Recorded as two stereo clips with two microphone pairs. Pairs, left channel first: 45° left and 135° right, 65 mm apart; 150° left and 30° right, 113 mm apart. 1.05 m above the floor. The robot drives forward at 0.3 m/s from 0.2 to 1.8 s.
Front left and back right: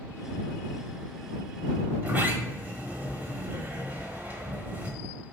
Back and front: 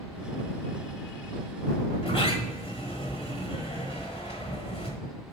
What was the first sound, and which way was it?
A sliding door, 165° left.